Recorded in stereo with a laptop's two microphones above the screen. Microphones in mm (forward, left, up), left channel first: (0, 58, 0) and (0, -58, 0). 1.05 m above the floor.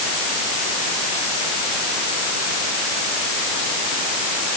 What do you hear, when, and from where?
Only background noise.